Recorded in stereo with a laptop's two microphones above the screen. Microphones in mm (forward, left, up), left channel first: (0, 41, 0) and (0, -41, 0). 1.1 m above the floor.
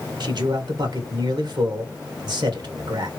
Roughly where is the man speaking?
Right.